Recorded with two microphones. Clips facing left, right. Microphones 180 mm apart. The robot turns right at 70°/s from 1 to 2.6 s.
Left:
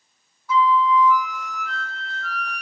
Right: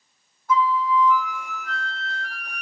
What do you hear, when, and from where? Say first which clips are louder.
0.5 s a flute: left 3 dB; 105° right, 0.6 m; by 2.6 s 5° left, 0.6 m